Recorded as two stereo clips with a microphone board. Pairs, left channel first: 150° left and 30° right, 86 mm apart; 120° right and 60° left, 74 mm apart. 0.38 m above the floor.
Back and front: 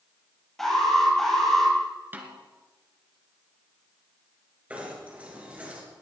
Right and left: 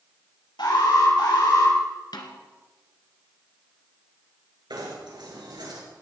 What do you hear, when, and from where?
0.6 s an alarm: 125° right, 9 m
2.1 s a snare drum: 100° right, 2.5 m
4.7 s knocking: 45° left, 6 m